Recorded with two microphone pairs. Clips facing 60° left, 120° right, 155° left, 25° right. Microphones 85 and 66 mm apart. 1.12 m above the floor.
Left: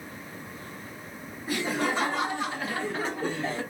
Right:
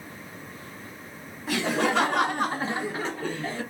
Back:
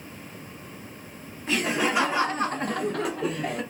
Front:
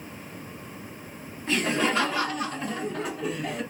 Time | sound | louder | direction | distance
1.5 | laughter | right 3 dB, even | 120° right | 1.2 m